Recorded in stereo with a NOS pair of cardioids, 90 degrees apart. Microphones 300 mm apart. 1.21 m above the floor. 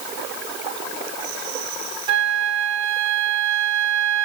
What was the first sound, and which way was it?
A flute, 65° right.